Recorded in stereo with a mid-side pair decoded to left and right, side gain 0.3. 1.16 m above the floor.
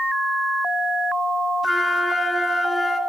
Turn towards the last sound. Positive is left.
turn(degrees=20)